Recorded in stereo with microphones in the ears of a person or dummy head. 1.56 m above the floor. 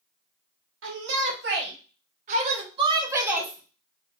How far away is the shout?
About 1.4 m.